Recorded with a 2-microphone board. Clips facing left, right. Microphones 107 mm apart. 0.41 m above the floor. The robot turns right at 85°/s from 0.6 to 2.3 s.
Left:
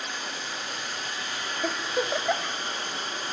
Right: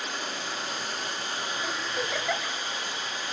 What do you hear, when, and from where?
0.0 s running water: 100° right, 5 m; by 3.3 s 45° left, 5 m
1.6 s a giggle: 65° left (ahead or behind), 1.2 m; by 2.5 s 20° left (ahead or behind), 1.2 m